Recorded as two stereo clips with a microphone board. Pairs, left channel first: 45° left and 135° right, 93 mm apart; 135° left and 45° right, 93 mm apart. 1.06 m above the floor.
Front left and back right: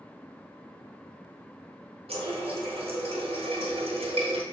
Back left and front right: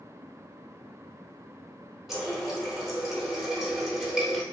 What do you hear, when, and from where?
2.1 s a running tap: 130° right, 0.8 m